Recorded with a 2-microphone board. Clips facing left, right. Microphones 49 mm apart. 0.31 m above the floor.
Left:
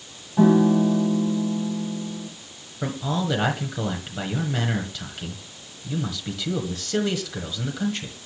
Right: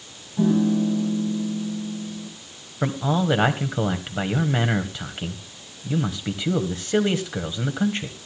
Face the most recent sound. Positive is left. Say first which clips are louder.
# right 4 dB
turn(degrees=-25)  # may be behind; listen again after turning